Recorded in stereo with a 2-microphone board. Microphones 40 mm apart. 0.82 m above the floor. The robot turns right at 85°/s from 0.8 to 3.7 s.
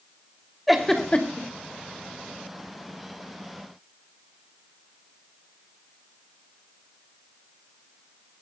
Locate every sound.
0.7 s a giggle: 5° right (ahead or behind), 3 m; by 1.5 s 55° left (ahead or behind), 3 m